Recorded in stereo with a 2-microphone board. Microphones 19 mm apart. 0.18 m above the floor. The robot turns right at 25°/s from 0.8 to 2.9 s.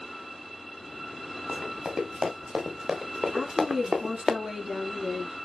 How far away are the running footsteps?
About 4 m.